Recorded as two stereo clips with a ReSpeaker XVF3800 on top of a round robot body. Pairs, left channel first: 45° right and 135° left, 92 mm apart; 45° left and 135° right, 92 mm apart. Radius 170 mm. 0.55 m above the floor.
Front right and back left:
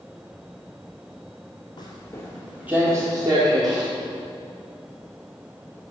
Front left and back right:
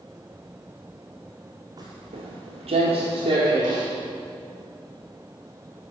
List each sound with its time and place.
1.8 s footsteps: 85° right, 1.1 m; by 3.9 s straight behind, 2.5 m